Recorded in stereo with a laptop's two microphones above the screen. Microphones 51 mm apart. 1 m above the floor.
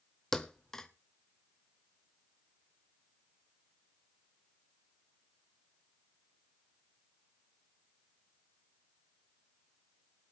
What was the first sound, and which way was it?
A thud, 10° left (ahead or behind).